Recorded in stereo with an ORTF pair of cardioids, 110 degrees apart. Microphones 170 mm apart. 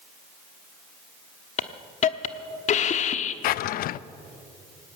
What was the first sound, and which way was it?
A hiss, 50° left.